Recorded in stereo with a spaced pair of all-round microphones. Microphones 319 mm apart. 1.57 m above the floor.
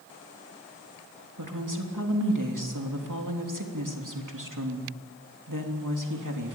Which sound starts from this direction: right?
A woman speaking, at 1.4 s.